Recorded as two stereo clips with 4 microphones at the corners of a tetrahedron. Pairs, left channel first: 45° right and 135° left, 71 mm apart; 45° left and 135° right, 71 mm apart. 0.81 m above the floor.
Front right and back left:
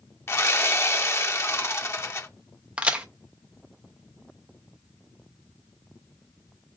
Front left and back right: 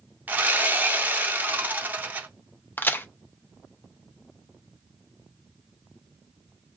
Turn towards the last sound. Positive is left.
turn(degrees=80)